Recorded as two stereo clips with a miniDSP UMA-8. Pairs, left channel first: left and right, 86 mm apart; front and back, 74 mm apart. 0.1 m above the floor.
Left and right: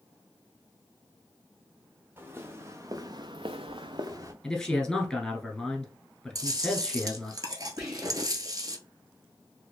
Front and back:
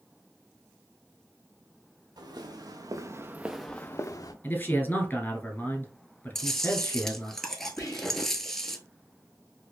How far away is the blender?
I don't hear a blender.